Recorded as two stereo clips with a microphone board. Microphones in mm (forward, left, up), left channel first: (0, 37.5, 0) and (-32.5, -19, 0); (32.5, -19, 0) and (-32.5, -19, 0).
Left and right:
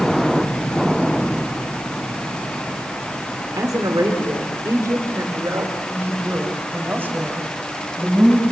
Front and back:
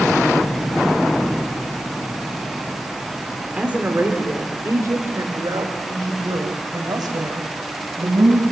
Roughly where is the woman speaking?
Right.